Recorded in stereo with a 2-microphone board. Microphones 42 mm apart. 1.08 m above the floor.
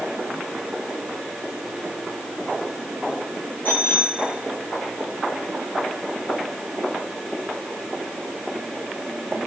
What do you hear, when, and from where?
3.6 s a bicycle bell: 45° left (ahead or behind), 7 m